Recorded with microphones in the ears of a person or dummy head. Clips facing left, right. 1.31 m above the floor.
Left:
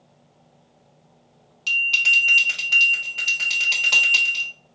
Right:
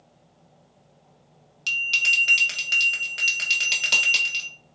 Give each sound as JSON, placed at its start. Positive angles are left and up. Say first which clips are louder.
{"t": 1.7, "sound": "a bell", "louder": "left 3 dB", "side_deg": -20, "distance_m": 0.9}